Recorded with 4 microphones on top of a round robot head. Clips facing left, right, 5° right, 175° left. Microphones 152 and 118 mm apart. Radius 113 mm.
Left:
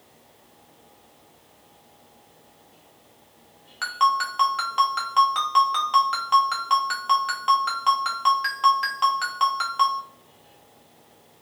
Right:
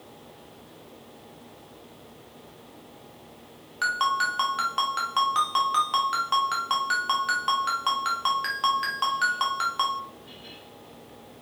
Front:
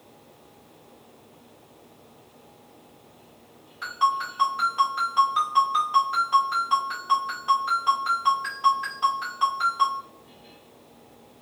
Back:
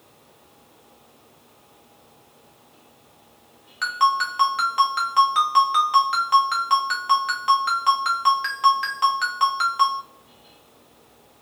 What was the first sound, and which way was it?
A ringtone, straight behind.